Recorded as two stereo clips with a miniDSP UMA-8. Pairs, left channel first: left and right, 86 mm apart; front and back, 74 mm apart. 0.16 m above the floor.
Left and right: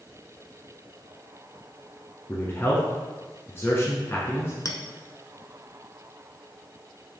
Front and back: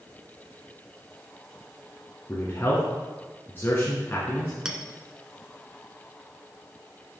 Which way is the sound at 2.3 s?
45° left.